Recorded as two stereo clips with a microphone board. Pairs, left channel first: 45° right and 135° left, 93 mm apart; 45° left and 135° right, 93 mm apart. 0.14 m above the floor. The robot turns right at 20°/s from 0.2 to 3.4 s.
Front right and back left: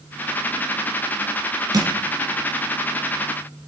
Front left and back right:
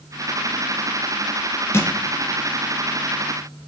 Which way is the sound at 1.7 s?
100° left.